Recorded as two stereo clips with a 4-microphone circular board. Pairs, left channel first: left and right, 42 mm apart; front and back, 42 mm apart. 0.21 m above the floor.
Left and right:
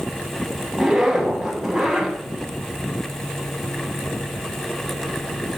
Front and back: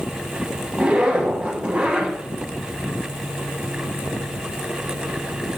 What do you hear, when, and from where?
0.7 s a zipper: 160° right, 1.2 m